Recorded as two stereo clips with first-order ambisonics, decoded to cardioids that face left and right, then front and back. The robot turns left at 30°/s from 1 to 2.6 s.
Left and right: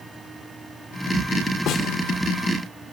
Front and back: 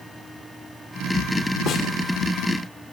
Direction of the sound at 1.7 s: 45° left.